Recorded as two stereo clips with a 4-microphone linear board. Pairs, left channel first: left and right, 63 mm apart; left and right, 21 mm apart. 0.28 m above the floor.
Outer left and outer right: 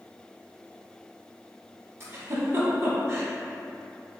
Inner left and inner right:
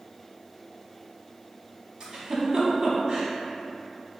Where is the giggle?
40° right (ahead or behind), 0.9 m.